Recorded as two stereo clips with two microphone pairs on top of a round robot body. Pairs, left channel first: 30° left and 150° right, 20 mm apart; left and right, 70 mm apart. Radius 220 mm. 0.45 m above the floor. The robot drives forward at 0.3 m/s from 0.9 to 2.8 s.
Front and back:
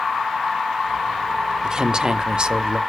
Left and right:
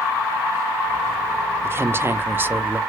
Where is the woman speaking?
120° right, 0.8 m; by 2.8 s 150° right, 1.0 m.